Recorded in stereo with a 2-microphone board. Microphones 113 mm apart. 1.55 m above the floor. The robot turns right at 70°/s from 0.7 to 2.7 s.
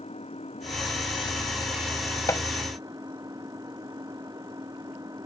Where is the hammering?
30° left (ahead or behind); by 2.5 s 40° left (ahead or behind).